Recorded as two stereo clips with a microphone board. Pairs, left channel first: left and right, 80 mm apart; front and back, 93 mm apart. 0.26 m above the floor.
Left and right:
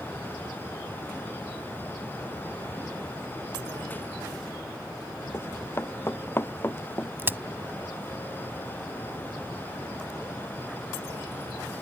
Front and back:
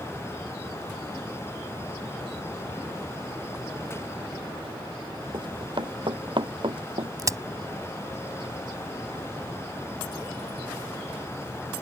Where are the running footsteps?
150° left.